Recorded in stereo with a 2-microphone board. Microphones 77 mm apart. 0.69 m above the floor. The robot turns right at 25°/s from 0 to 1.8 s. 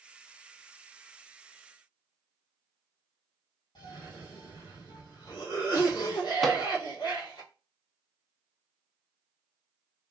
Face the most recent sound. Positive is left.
turn(degrees=0)  # may be behind; listen again after turning